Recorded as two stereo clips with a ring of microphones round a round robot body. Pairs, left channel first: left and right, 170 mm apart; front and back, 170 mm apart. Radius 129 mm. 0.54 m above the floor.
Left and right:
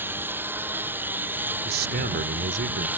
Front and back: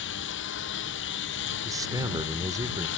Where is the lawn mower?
10° right.